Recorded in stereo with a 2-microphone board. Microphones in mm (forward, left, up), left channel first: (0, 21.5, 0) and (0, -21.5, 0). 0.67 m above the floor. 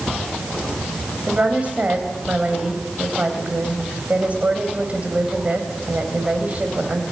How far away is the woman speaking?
About 3.5 m.